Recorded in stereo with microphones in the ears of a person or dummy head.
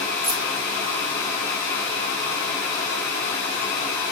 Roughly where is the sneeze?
No sneeze in this recording.